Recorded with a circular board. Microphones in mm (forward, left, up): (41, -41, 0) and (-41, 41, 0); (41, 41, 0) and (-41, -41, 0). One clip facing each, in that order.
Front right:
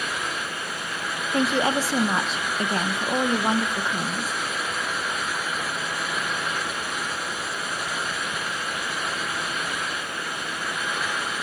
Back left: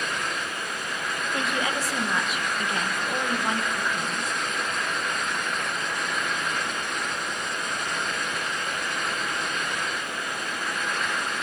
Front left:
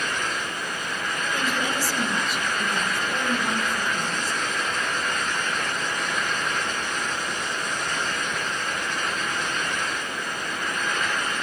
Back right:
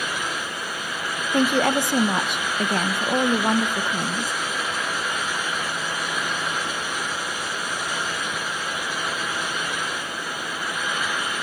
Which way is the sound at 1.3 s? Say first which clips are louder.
Front right 7 dB, back right 10 dB; 105° right.